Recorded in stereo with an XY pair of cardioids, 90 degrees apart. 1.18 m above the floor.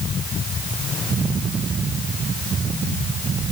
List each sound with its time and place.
Only background noise.